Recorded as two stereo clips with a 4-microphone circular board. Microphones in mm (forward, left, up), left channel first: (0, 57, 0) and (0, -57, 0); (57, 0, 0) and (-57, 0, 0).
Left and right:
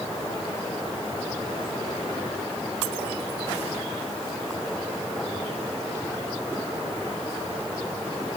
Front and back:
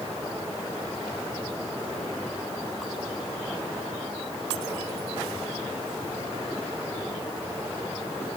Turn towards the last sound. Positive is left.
No sound to turn to.